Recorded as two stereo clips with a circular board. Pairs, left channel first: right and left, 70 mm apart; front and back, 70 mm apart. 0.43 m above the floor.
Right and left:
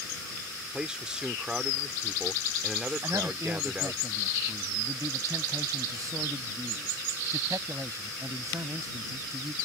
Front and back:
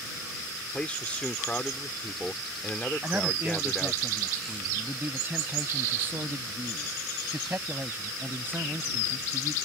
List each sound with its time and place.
0.7 s a man speaking: 35° left
3.0 s a man speaking: 125° left